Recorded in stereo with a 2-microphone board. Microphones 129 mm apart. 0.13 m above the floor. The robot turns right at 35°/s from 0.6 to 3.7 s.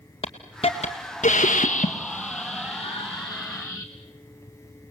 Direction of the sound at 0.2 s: 45° left.